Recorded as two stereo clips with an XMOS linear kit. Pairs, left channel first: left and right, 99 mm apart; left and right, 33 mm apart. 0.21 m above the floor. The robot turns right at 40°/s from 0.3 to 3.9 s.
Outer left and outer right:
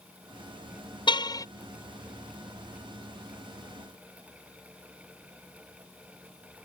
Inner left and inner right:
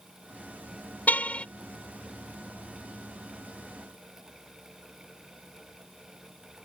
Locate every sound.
1.1 s a car horn: 50° left (ahead or behind); by 1.4 s 35° left (ahead or behind)